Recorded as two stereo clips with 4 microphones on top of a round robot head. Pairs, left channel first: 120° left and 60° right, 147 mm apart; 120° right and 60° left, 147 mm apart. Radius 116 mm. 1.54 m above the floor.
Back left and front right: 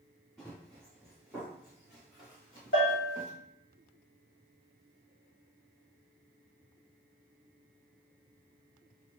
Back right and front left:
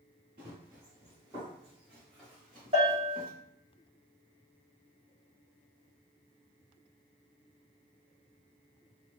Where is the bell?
110° left, 1.2 m.